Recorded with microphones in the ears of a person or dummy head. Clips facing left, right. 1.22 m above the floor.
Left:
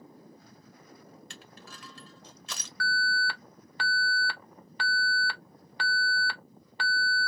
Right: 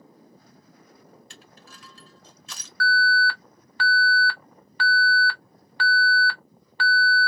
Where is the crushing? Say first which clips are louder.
Left 1 dB; 50° left (ahead or behind), 1.1 m.